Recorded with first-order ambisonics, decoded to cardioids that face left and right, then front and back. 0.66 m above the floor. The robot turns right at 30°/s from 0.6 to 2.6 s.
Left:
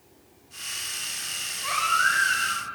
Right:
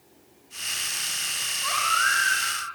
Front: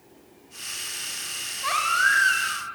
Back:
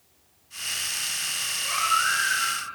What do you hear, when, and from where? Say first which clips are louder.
1.6 s a baby crying: left 1 dB, front 3 dB; 15° right, 1.8 m; by 2.6 s 15° left, 1.8 m